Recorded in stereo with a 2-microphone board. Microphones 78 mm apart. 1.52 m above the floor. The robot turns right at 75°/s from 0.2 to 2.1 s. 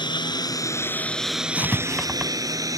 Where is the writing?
30° left (ahead or behind); by 2.3 s 10° right (ahead or behind).